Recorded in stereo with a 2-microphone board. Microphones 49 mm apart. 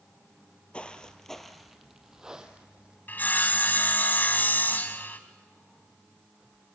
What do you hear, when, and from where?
0.7 s footsteps: 25° left (ahead or behind), 1.8 m; by 3.0 s 20° right (ahead or behind), 3 m
3.1 s sawing: 40° left (ahead or behind), 1.9 m